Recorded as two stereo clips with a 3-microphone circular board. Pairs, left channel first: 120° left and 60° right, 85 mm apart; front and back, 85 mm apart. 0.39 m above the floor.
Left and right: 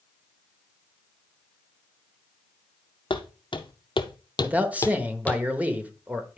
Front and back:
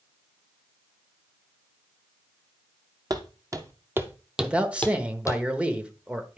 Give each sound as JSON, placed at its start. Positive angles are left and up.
{"t": 3.1, "sound": "footsteps", "azimuth_deg": 140, "distance_m": 1.1}
{"t": 4.4, "sound": "a man speaking", "azimuth_deg": -115, "distance_m": 0.9}